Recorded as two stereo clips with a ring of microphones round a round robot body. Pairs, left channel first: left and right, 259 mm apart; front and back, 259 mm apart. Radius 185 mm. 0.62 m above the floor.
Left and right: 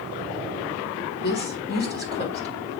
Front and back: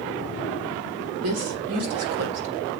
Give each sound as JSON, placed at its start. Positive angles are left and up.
{"t": 1.2, "sound": "a woman speaking", "azimuth_deg": 150, "distance_m": 1.3}